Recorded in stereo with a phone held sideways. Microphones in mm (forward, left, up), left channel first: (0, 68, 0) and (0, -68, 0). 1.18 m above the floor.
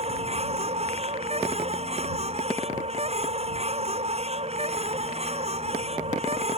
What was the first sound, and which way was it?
A machine running, 50° right (ahead or behind).